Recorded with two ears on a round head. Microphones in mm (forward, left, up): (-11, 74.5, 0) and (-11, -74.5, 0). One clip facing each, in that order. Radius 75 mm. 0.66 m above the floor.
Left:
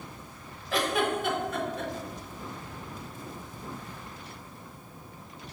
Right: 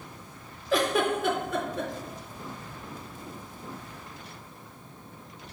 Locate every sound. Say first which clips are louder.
0.7 s a giggle: right 3 dB; 75° right (ahead or behind), 0.6 m